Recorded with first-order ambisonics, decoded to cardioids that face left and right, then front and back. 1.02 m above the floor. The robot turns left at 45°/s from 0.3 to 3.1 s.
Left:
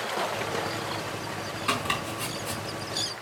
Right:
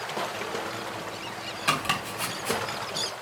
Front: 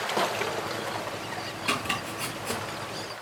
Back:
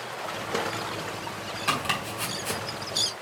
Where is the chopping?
115° right, 3 m; by 2.6 s 155° right, 3 m.